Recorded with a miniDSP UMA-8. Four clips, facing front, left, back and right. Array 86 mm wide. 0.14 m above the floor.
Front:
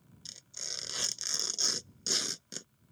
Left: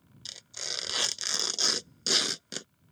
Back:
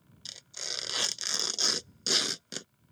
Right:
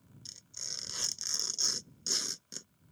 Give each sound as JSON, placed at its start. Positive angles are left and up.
{"t": 0.2, "sound": "tearing paper", "azimuth_deg": 120}